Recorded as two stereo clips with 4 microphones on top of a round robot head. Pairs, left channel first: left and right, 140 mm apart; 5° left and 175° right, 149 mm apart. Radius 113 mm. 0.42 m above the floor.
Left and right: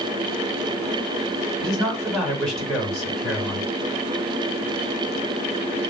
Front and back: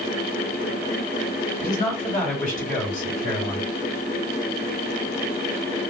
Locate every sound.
1.6 s a man speaking: straight ahead, 2 m